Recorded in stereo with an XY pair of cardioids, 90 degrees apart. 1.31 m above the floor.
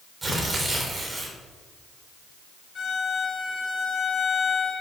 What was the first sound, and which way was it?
Tearing paper, 30° right.